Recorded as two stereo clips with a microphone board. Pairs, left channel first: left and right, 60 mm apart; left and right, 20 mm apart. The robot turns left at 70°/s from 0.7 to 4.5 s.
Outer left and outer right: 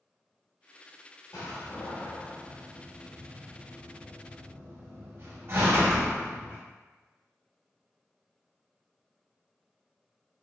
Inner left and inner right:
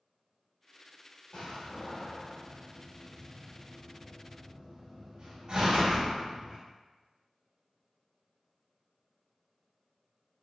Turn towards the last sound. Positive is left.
turn(degrees=-45)  # may be behind; listen again after turning